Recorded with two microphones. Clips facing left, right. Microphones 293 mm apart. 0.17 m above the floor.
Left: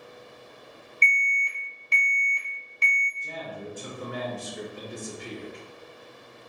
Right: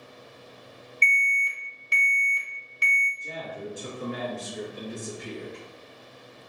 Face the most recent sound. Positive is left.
turn(degrees=-5)  # may be behind; listen again after turning